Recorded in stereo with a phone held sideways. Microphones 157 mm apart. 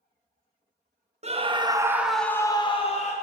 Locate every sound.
1.2 s a scream: 40° right (ahead or behind), 0.7 m; by 3.1 s 45° left (ahead or behind), 0.7 m